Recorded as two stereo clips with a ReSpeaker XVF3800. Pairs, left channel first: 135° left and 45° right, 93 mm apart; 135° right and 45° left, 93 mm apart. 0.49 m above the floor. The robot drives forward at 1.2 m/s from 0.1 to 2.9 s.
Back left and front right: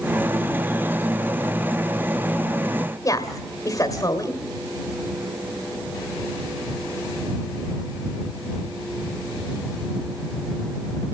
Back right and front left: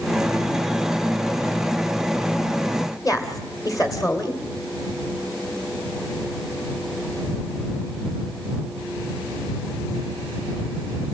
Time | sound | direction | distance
3.0 | a woman speaking | straight behind | 1.8 m